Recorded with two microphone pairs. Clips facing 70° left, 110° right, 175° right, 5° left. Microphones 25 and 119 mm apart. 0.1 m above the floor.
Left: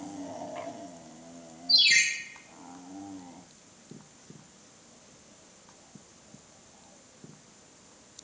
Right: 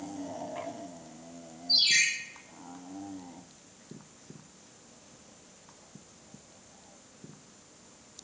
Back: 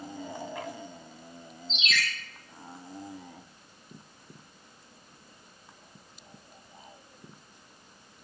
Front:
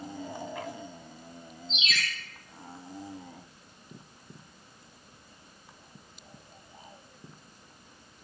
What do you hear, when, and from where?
1.7 s a ringtone: 15° left, 3 m